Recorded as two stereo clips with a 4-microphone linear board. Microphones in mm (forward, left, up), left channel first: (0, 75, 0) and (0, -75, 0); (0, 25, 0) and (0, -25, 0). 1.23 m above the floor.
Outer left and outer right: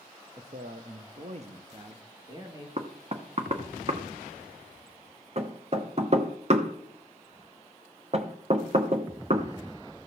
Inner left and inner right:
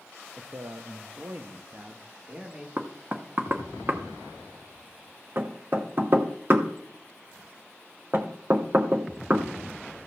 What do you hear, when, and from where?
0.4 s a man speaking: 40° right (ahead or behind), 0.8 m; by 2.7 s 25° right (ahead or behind), 2.0 m
2.8 s knocking: 45° right (ahead or behind), 1.0 m